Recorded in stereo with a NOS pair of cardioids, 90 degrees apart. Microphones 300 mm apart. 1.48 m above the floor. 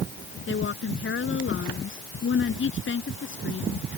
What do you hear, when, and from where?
0.5 s a woman speaking: 40° left